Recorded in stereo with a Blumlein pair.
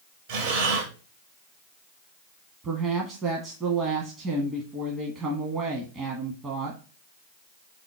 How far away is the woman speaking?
About 1.4 m.